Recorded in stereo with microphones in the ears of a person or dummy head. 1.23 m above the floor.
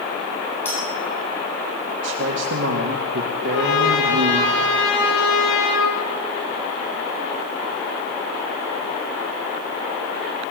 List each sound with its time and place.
0.7 s a clink: 10° left (ahead or behind), 8.5 m
2.0 s a man speaking: 75° right (ahead or behind), 2.5 m
3.4 s a trumpet: 80° left, 10 m